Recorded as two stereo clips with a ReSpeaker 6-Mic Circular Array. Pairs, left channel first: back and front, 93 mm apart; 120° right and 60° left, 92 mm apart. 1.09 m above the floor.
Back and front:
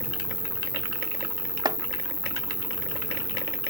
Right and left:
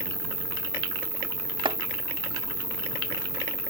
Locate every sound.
0.0 s an insect: 125° right
1.6 s chopping: 40° left